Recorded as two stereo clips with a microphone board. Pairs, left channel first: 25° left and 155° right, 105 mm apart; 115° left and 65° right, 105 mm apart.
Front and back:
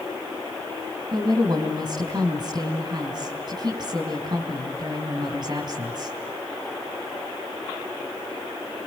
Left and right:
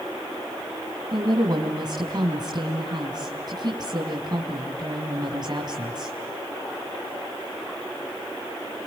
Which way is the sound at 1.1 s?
110° right.